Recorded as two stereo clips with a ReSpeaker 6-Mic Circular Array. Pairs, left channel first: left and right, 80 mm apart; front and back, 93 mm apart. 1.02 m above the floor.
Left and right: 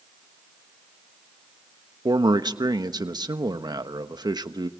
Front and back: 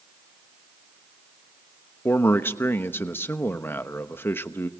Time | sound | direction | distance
2.0 | a man speaking | 65° right | 1.1 m